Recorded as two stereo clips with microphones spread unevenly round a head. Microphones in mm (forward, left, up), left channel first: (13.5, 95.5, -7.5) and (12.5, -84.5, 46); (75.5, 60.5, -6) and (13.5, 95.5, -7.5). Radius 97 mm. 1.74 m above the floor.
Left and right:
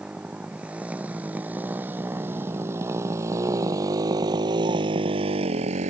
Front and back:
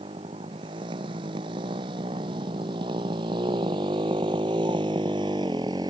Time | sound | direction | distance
0.0 | a motorcycle | 175° right | ?